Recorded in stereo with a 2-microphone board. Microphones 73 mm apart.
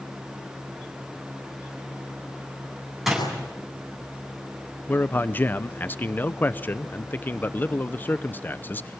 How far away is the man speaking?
About 0.7 m.